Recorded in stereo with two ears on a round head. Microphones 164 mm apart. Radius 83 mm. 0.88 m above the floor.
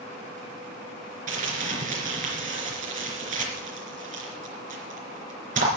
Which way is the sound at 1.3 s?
45° right (ahead or behind).